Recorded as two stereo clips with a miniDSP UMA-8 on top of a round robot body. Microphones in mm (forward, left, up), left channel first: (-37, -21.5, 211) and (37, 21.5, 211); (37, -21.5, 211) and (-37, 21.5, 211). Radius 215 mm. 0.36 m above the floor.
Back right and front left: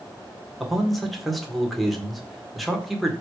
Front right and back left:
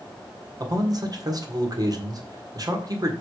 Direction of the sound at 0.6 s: 120° left.